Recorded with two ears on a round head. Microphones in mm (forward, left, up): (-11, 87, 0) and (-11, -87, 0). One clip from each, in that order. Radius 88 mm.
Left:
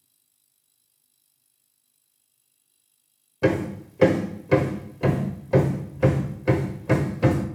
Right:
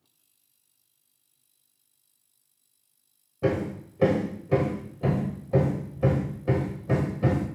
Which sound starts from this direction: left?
Hammering, at 3.4 s.